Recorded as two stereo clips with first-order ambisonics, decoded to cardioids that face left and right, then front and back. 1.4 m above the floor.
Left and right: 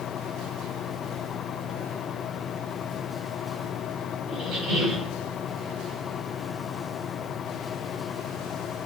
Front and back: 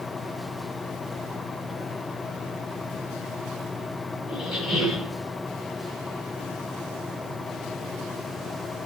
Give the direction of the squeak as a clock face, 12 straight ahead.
1 o'clock.